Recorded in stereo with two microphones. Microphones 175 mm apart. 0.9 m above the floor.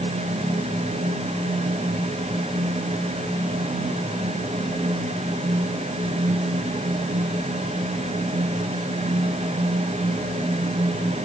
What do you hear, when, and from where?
Only background noise.